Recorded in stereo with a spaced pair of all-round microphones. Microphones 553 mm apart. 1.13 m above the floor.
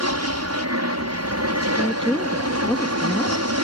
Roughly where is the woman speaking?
Centre.